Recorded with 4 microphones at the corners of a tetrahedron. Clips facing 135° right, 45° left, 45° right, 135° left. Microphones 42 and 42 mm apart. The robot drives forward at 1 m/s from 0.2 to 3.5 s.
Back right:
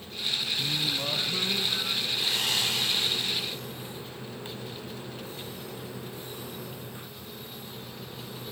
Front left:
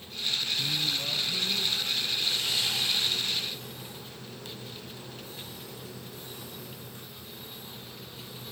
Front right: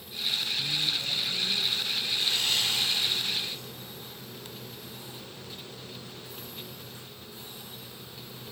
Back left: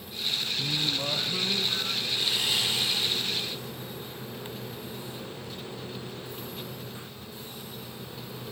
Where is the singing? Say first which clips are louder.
Back right 1 dB, back left 1 dB; 140° left, 0.6 m; by 2.0 s 175° left, 1.8 m.